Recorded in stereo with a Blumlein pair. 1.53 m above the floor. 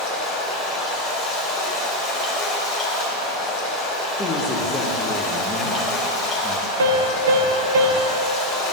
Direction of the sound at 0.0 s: 30° left.